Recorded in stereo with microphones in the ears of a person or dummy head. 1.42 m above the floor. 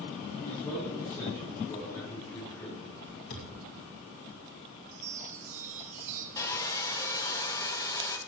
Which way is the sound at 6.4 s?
25° left (ahead or behind).